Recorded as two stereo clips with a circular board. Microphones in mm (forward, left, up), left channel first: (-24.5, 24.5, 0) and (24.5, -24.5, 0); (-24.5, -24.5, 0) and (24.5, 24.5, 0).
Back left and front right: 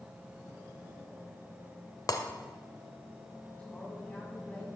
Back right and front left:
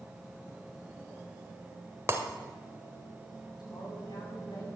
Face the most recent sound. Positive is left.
turn(degrees=-155)